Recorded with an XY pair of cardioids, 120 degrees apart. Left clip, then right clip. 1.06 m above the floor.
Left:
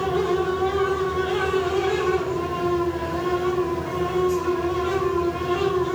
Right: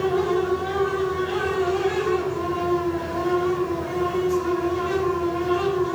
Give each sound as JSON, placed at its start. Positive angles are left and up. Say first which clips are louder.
{"t": 0.0, "sound": "a fan", "louder": "even", "azimuth_deg": 40, "distance_m": 0.9}